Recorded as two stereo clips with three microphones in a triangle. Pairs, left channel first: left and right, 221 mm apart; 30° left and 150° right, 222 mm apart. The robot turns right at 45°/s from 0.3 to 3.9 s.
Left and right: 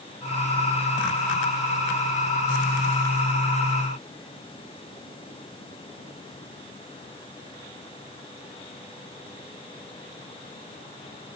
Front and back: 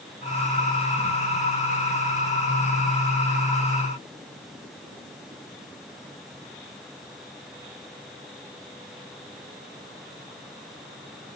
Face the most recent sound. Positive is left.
No sound to turn to.